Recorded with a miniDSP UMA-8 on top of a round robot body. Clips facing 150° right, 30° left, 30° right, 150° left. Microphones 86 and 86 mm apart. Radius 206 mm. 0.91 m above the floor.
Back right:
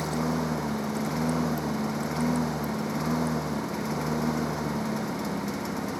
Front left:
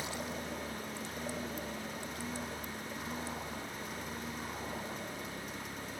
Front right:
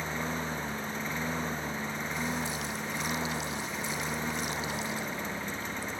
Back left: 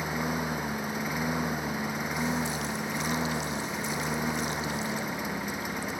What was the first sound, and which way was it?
A lawn mower, 130° right.